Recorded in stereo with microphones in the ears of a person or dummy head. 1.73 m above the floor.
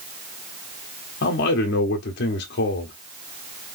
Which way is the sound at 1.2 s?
60° left (ahead or behind).